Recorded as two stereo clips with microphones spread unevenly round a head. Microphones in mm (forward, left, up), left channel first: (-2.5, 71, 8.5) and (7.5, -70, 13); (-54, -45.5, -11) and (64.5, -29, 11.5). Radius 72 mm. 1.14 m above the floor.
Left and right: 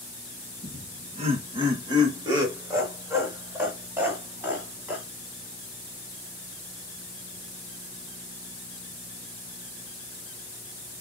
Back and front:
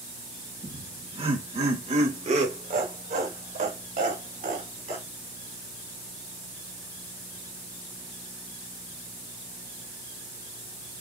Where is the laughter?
50° right, 1.2 m; by 5.0 s 5° right, 3.5 m.